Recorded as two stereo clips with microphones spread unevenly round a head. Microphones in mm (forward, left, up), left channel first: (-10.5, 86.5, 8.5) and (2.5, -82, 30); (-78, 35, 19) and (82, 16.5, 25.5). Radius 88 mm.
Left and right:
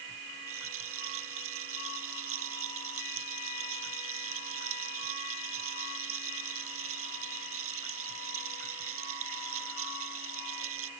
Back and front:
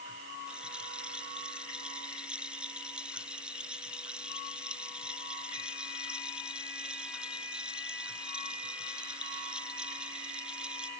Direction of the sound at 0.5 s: 90° right.